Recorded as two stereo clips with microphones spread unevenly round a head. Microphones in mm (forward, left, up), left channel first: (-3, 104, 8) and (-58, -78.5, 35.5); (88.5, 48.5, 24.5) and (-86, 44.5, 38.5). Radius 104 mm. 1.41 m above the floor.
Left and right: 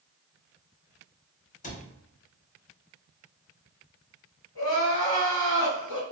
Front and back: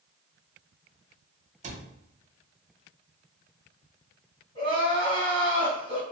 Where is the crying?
55° left, 1.7 m.